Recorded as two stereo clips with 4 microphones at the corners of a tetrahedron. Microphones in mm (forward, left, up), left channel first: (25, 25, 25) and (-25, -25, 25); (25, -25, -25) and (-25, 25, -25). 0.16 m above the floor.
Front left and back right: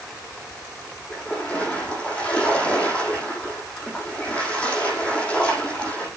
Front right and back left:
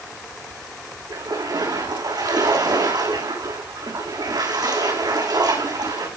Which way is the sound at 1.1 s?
120° left.